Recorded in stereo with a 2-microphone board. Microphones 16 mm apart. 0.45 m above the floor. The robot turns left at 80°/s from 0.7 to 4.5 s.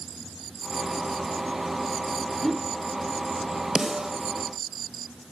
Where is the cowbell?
I don't hear a cowbell.